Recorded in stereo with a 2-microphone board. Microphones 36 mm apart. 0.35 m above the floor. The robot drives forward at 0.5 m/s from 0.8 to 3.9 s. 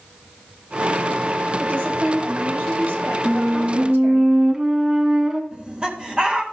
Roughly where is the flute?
Right.